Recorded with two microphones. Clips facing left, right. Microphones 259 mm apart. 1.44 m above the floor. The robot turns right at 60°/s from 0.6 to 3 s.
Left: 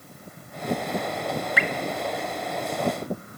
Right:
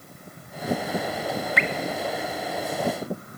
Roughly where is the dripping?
Centre.